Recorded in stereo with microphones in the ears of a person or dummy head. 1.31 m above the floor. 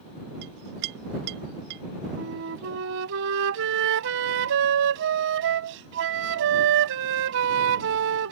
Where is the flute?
60° right (ahead or behind).